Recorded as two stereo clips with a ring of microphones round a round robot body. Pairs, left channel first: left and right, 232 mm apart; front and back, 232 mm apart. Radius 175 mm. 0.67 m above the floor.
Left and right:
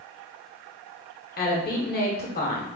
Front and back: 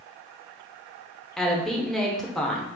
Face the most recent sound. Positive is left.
turn(degrees=85)